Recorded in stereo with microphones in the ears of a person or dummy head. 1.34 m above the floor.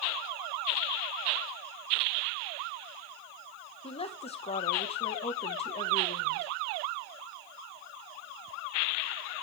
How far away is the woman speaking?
About 1.3 m.